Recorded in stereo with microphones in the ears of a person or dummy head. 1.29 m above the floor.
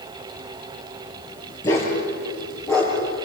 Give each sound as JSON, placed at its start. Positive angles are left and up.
{"t": 1.6, "sound": "a dog barking", "side_deg": 20, "distance_m": 6.0}